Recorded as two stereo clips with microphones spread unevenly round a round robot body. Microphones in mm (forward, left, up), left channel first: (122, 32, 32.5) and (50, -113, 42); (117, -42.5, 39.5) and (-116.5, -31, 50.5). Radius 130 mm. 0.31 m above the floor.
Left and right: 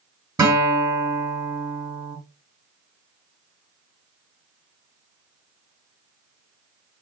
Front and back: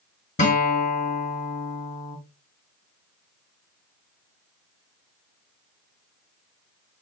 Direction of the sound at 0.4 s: 50° right.